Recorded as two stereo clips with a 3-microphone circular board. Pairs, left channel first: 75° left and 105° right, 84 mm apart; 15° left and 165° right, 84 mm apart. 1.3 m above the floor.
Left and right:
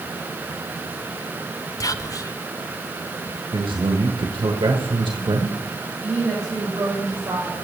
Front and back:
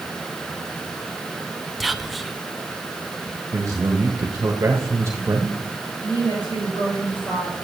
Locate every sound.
1.8 s whispering: 105° left, 0.6 m
3.5 s a man speaking: 110° right, 1.2 m
6.0 s a woman speaking: 30° right, 5.5 m